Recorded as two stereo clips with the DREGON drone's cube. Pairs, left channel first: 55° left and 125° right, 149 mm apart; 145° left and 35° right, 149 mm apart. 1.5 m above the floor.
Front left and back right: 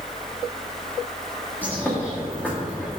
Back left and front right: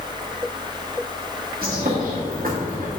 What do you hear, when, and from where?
1.6 s a bird: 20° right, 2 m